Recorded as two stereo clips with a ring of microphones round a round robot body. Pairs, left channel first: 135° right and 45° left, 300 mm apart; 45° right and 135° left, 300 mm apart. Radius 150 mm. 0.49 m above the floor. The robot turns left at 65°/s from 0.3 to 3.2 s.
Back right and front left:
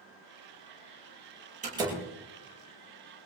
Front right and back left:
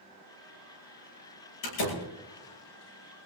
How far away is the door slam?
About 8.5 m.